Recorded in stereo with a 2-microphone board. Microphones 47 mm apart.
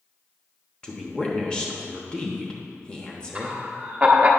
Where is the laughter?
25° right (ahead or behind), 1.1 m.